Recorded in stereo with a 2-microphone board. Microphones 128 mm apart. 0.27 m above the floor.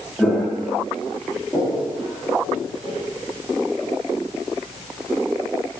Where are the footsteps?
5° left (ahead or behind), 2.5 m; by 2.9 s 10° right (ahead or behind), 6 m.